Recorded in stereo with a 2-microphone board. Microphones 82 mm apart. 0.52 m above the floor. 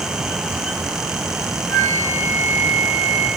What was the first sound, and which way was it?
A flute, 30° left (ahead or behind).